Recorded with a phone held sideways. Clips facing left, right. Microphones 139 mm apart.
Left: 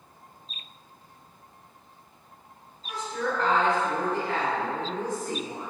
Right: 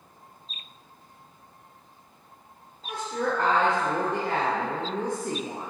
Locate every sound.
2.8 s a woman speaking: 60° right (ahead or behind), 0.8 m